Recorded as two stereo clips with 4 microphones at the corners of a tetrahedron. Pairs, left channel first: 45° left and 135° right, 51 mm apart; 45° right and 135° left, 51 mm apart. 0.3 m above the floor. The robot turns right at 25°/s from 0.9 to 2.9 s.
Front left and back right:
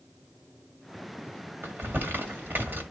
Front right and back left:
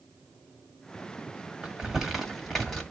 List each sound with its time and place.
1.6 s crumpling: 150° right, 1.4 m; by 2.8 s 120° right, 1.4 m